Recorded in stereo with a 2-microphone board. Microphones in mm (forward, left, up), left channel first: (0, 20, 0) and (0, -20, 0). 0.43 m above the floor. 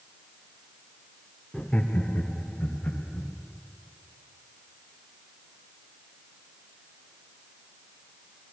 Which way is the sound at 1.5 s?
15° left (ahead or behind).